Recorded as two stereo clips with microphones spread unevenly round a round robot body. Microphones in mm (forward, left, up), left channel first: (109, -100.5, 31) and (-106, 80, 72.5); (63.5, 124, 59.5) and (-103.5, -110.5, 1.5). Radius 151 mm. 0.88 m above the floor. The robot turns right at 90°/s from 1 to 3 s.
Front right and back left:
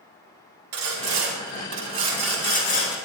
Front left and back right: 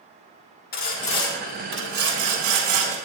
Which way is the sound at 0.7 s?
115° left.